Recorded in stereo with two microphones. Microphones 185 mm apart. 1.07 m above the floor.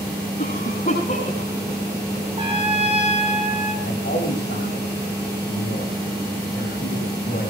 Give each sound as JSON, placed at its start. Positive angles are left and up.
{"t": 0.4, "sound": "a cough", "side_deg": 55, "distance_m": 9.0}
{"t": 2.4, "sound": "a trumpet", "side_deg": -35, "distance_m": 6.0}
{"t": 3.8, "sound": "a man speaking", "side_deg": 80, "distance_m": 6.0}